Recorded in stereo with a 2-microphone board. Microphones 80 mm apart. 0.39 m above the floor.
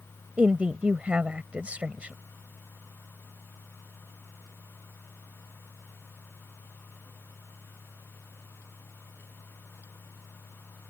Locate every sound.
0.4 s a woman speaking: 15° right (ahead or behind)